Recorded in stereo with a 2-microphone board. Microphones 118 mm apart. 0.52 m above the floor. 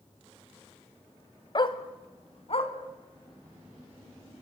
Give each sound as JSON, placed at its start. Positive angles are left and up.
{"t": 1.6, "sound": "a dog barking", "side_deg": 40, "distance_m": 1.3}